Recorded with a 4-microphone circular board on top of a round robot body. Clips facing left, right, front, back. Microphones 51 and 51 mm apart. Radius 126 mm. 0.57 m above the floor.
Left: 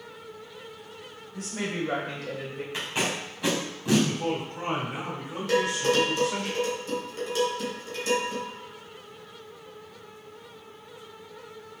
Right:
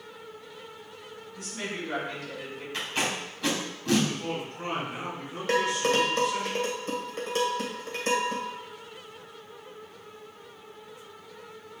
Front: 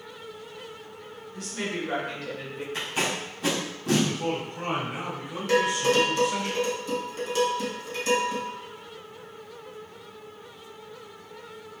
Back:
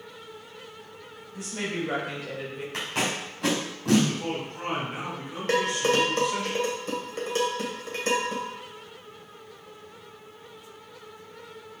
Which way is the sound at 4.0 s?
80° left.